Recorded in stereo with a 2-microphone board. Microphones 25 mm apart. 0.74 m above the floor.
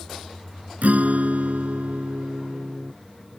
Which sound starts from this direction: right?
A guitar, at 0.8 s.